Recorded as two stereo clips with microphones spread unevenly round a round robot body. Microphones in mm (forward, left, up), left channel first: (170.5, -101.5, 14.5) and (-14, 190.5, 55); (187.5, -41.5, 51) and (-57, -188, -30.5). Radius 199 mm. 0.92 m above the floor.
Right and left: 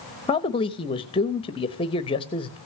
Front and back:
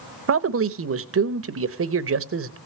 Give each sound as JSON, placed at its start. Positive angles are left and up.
{"t": 0.3, "sound": "a man speaking", "azimuth_deg": -130, "distance_m": 0.9}